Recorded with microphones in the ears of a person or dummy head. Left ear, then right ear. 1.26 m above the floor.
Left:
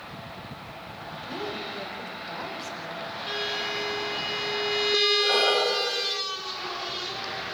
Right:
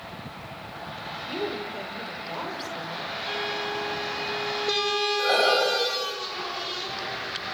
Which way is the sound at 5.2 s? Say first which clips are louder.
Right 1 dB; 40° right (ahead or behind).